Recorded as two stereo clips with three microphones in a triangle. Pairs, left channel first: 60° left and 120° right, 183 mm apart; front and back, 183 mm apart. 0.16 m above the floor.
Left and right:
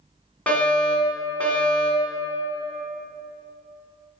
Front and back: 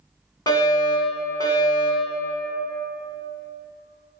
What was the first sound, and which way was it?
A fire alarm, 10° right.